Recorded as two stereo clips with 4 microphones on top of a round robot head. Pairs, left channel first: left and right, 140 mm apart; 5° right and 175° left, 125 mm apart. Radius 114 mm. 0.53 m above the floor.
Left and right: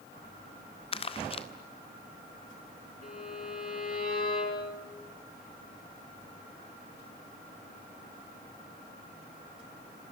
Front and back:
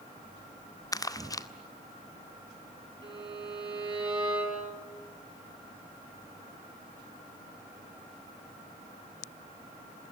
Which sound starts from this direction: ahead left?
Crumpling, at 0.9 s.